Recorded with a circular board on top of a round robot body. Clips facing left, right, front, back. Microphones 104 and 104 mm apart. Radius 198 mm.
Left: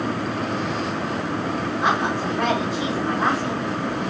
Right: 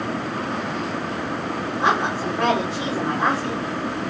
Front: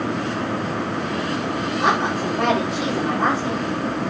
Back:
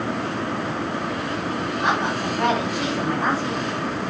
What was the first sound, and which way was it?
A woman speaking, 25° right.